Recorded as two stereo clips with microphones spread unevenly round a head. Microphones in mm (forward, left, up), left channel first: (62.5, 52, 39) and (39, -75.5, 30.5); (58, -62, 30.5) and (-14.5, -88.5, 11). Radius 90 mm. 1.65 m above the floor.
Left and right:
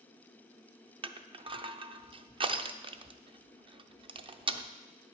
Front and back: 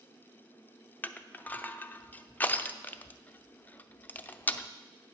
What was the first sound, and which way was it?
Crushing, 50° right.